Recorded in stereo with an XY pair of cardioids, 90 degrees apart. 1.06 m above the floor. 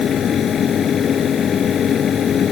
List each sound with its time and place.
0.0 s a fan: 65° left